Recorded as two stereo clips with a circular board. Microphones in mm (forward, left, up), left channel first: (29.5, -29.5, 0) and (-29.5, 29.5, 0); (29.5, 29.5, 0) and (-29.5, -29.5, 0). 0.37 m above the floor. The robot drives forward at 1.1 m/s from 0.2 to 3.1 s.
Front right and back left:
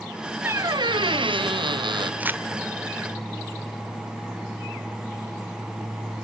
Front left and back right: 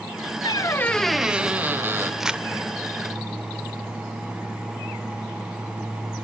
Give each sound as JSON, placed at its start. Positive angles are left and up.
{"t": 0.4, "sound": "a squeak", "azimuth_deg": 70, "distance_m": 0.6}
{"t": 2.2, "sound": "crumpling", "azimuth_deg": 145, "distance_m": 0.7}